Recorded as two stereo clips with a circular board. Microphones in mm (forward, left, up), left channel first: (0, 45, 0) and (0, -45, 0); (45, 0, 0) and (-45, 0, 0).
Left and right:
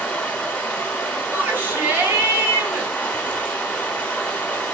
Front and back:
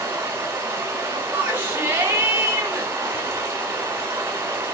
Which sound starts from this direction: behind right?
A shout, at 1.3 s.